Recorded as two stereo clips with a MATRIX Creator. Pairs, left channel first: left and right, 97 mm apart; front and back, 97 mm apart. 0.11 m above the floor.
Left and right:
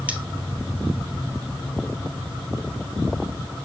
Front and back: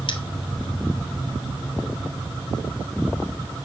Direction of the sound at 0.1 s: 20° right.